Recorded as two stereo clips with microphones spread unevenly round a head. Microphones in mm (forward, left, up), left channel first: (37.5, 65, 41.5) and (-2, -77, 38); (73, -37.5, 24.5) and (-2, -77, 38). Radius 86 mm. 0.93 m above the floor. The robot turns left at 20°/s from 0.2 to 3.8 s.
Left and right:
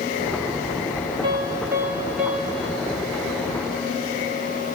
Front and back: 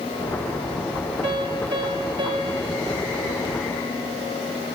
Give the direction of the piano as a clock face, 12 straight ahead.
6 o'clock.